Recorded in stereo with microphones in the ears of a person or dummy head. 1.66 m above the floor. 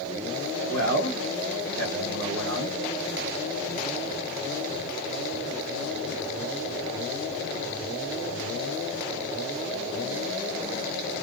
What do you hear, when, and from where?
0.7 s a man speaking: 75° right (ahead or behind), 2 m